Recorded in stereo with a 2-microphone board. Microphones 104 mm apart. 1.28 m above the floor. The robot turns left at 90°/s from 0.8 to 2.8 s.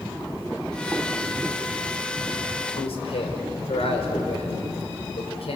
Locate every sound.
2.8 s a man speaking: 90° left, 5 m; by 5.6 s 85° left, 5 m